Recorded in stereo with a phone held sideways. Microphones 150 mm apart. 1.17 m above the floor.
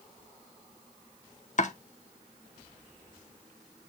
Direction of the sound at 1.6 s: 55° left (ahead or behind).